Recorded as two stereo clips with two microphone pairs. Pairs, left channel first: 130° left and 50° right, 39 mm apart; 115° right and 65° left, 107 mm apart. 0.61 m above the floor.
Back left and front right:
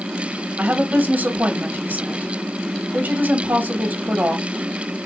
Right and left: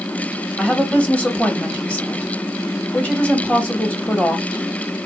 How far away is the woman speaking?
About 1.2 m.